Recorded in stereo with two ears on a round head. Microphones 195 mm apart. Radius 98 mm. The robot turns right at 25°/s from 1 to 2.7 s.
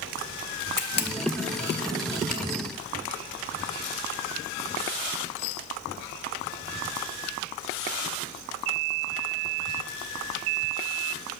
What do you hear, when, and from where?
0.8 s a camera shutter: 50° left (ahead or behind), 1.1 m; by 2.4 s 35° left (ahead or behind), 1.1 m